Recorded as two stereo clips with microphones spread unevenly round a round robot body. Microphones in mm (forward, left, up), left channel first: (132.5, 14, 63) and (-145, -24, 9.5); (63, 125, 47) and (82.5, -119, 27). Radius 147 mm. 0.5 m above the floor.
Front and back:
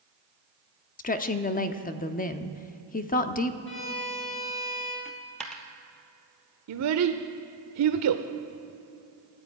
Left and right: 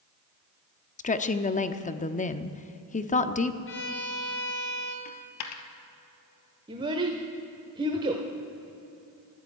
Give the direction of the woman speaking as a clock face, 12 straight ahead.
10 o'clock.